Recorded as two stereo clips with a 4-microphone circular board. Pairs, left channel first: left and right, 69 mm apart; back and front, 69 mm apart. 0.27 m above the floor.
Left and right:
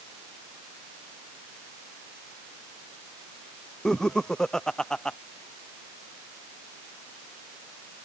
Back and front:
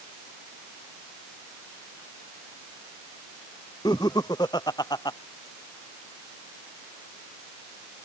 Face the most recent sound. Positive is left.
turn(degrees=170)